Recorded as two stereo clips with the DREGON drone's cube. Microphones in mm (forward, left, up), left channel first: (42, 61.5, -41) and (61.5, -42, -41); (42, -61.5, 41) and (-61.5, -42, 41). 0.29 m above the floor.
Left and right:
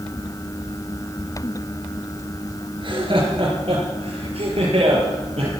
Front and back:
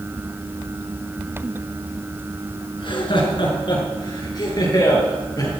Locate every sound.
2.8 s laughter: 45° right, 4.5 m; by 5.5 s 65° right, 7 m